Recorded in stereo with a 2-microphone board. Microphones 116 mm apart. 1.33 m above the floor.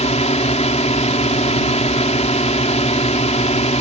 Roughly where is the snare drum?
I don't hear a snare drum.